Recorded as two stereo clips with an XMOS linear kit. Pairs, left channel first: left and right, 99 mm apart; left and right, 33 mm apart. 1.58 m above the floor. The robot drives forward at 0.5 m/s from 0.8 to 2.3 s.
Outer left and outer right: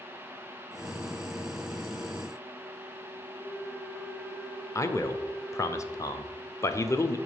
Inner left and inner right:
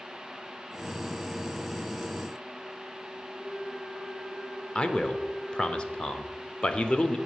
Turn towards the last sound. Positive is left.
turn(degrees=30)  # may be behind; listen again after turning